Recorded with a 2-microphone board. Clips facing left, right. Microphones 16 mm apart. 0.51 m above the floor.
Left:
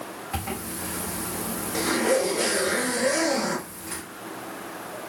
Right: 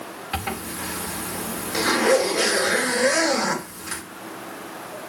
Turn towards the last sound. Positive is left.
turn(degrees=-55)  # may be behind; listen again after turning